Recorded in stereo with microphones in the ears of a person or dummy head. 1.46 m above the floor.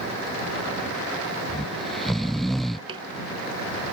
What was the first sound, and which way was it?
Snoring, centre (ahead or behind).